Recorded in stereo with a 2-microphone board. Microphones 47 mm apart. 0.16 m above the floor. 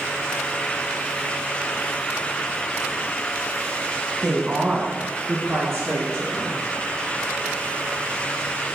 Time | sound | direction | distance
4.2 | a woman speaking | 5° right (ahead or behind) | 1.3 m